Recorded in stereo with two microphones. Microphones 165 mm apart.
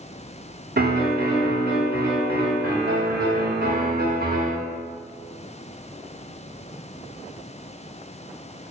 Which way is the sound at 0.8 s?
80° right.